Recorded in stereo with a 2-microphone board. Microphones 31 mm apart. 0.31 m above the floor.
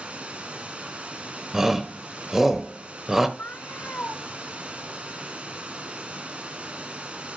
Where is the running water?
40° right (ahead or behind), 1.8 m.